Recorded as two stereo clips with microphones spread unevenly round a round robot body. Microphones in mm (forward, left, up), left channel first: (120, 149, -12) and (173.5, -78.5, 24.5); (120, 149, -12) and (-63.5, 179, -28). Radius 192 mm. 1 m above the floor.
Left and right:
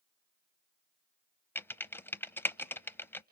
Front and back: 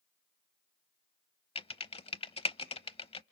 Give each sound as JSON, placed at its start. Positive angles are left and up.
{"t": 1.6, "sound": "typing on a keyboard", "azimuth_deg": 15, "distance_m": 0.9}